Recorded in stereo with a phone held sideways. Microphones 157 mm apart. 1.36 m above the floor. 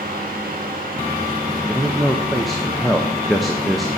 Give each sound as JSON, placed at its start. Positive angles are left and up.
{"t": 0.0, "sound": "a fan", "side_deg": -65, "distance_m": 1.7}
{"t": 1.7, "sound": "a man speaking", "side_deg": 0, "distance_m": 0.7}